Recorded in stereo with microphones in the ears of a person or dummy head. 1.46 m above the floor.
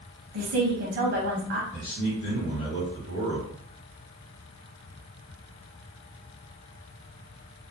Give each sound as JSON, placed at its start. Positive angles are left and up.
{"t": 0.3, "sound": "a woman speaking", "side_deg": -50, "distance_m": 0.6}
{"t": 1.7, "sound": "a man speaking", "side_deg": 55, "distance_m": 1.1}